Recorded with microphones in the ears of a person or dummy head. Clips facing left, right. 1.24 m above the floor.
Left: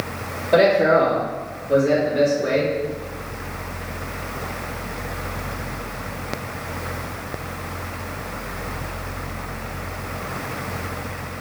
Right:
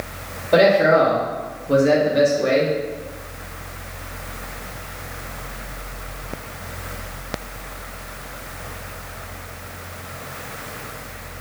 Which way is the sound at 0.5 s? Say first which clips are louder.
Right 1 dB; centre (ahead or behind).